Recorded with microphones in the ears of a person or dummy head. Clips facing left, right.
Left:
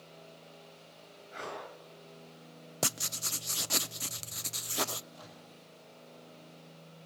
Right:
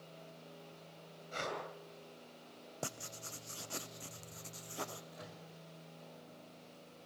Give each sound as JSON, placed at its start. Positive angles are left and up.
{"t": 1.3, "sound": "breathing", "side_deg": -60, "distance_m": 9.5}
{"t": 2.8, "sound": "writing", "side_deg": 85, "distance_m": 0.7}
{"t": 5.1, "sound": "a microwave", "side_deg": -25, "distance_m": 6.0}